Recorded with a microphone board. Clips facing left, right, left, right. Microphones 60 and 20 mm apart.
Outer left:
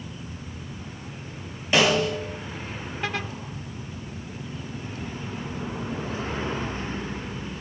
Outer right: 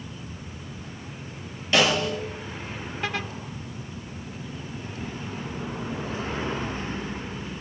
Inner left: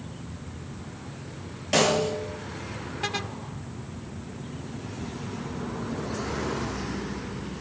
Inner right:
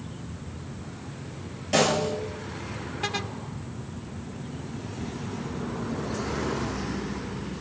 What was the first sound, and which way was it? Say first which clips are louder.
A snare drum: outer left 1 dB, inner left 1 dB; 20° left (ahead or behind).